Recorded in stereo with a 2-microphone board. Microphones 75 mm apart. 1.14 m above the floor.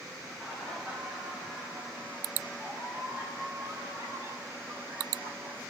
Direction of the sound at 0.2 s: 5° right (ahead or behind).